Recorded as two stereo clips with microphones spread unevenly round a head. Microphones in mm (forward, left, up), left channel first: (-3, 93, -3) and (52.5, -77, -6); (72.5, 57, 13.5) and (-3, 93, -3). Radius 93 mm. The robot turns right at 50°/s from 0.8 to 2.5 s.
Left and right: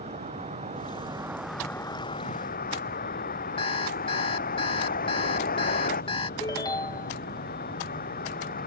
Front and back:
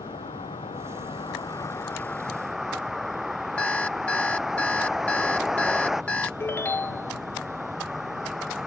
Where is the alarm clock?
45° left.